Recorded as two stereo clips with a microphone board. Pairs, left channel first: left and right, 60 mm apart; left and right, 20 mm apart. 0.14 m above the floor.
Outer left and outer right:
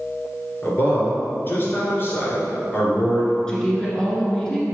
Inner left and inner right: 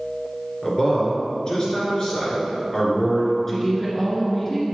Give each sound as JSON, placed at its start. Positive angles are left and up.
{"t": 0.6, "sound": "a man speaking", "side_deg": 35, "distance_m": 2.0}
{"t": 3.5, "sound": "a woman speaking", "side_deg": 15, "distance_m": 1.7}